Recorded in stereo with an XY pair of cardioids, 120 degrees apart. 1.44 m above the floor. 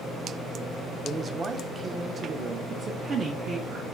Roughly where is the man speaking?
Ahead right.